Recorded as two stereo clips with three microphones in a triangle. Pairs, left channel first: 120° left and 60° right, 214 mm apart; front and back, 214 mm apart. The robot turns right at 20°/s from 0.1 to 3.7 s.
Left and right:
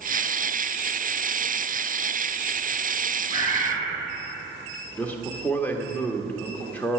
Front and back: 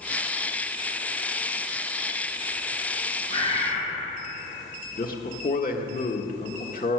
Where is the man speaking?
40° left, 1.4 m.